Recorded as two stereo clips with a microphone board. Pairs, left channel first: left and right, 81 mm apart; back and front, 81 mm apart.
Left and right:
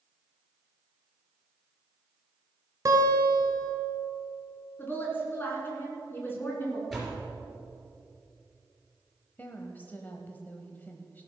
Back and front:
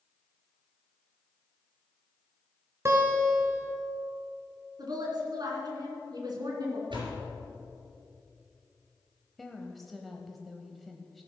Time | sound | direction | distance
2.9 | a guitar | 50° right | 2.0 m
4.8 | a woman speaking | 30° left | 3 m
6.9 | a door slam | 5° left | 3.5 m
9.4 | a woman speaking | 95° left | 1.0 m